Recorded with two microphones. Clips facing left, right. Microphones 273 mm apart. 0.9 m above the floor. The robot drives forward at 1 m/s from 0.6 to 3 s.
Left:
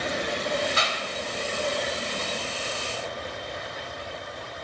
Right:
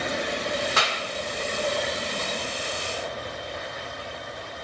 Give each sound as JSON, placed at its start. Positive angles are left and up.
{"t": 0.8, "sound": "a clap", "side_deg": -85, "distance_m": 2.5}